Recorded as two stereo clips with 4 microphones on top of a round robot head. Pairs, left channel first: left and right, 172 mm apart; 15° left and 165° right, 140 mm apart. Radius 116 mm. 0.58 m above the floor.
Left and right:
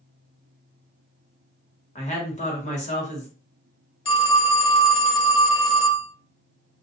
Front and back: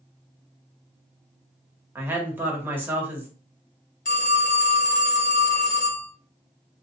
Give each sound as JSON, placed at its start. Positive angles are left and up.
{"t": 1.9, "sound": "a woman speaking", "azimuth_deg": 120, "distance_m": 1.2}
{"t": 4.0, "sound": "a phone ringing", "azimuth_deg": 30, "distance_m": 1.5}